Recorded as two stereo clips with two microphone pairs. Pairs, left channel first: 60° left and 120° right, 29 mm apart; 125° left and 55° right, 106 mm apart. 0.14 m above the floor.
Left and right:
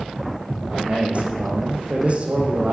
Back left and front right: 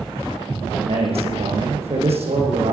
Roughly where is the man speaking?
Right.